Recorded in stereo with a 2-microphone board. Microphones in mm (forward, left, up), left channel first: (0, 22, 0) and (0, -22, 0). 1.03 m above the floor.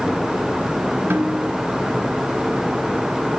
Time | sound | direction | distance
1.1 | a snare drum | 55° right (ahead or behind) | 4.5 m